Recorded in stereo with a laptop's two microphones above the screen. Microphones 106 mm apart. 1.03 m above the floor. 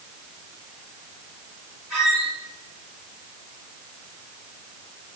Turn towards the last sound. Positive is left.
turn(degrees=-5)  # may be behind; listen again after turning